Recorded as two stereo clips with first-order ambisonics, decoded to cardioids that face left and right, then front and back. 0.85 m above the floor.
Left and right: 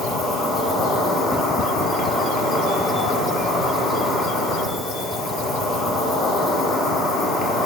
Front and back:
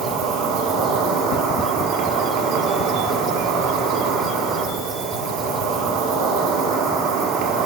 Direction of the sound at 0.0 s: 150° left.